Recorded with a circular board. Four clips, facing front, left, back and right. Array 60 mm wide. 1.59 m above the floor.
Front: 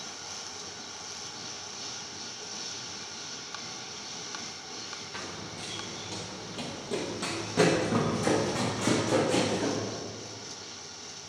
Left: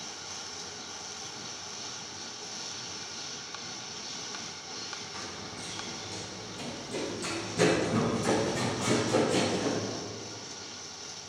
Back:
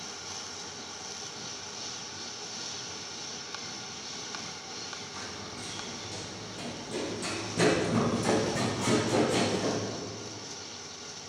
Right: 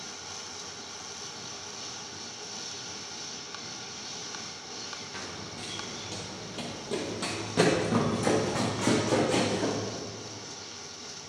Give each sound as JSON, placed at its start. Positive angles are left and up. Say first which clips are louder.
{"t": 5.1, "sound": "running footsteps", "louder": "right 1 dB, front 4 dB", "azimuth_deg": -35, "distance_m": 1.9}